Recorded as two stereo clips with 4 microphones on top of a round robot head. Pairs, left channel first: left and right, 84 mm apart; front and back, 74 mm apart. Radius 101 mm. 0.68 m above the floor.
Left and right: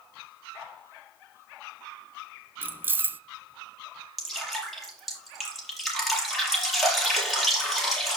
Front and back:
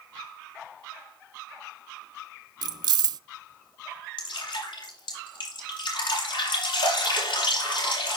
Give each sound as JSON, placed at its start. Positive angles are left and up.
{"t": 2.6, "sound": "keys jangling", "azimuth_deg": -160, "distance_m": 0.5}
{"t": 4.2, "sound": "dripping", "azimuth_deg": 0, "distance_m": 6.5}